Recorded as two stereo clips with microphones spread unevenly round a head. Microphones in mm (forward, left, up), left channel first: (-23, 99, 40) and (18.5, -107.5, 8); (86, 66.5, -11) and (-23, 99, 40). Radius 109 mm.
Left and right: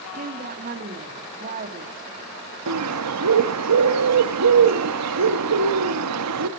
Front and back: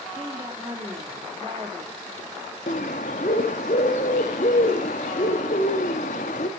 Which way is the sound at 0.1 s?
130° right.